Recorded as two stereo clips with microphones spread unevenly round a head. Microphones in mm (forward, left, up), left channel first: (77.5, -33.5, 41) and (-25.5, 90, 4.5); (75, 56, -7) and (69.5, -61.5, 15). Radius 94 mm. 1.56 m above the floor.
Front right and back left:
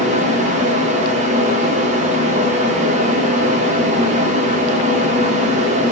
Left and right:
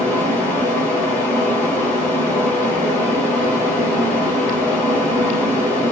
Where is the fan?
160° left, 1.6 m.